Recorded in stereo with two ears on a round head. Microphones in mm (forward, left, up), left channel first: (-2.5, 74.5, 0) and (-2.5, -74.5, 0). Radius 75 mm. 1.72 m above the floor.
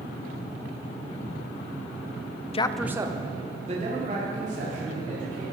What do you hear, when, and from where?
2.5 s a man speaking: 35° left (ahead or behind), 0.5 m; by 5.4 s 50° right (ahead or behind), 4.5 m